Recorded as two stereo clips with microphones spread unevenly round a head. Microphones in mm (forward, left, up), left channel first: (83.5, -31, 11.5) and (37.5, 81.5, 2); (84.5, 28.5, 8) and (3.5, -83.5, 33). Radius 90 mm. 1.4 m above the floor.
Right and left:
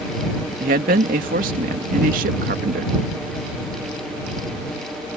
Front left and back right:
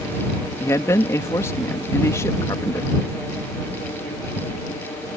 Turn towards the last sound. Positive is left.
turn(degrees=130)